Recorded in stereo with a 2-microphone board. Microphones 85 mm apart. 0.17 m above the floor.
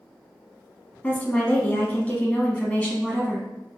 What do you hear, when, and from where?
1.0 s a woman speaking: 15° left (ahead or behind), 1.1 m